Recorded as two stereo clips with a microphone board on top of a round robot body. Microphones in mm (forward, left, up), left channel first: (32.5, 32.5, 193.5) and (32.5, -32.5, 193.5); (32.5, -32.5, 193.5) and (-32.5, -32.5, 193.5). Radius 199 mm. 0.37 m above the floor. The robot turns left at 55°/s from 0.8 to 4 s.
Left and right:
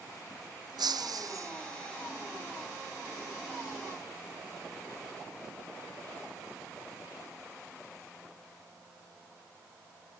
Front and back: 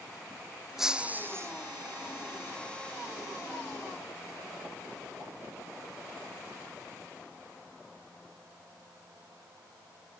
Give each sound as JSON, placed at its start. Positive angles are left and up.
{"t": 0.8, "sound": "breaking glass", "azimuth_deg": -95}